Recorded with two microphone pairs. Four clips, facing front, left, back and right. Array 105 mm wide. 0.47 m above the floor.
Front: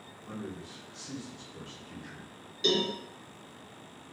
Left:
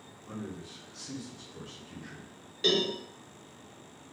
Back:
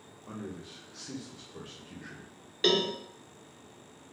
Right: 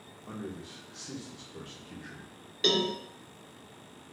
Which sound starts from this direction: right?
A man speaking, at 0.3 s.